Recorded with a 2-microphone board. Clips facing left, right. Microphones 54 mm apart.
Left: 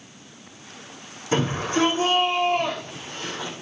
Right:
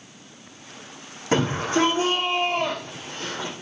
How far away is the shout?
About 8 m.